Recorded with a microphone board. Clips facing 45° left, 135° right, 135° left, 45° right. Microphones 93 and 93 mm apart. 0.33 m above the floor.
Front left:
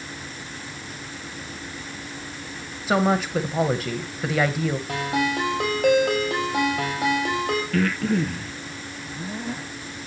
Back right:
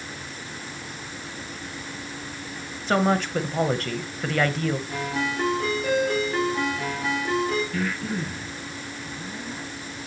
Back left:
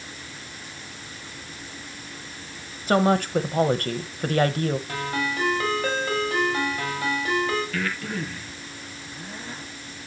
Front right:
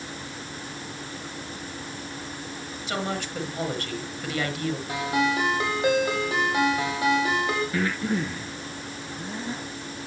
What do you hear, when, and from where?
2.9 s a woman speaking: 125° left, 1.5 m
4.9 s a ringtone: 25° left, 7 m
7.7 s breathing: 20° left, 2.5 m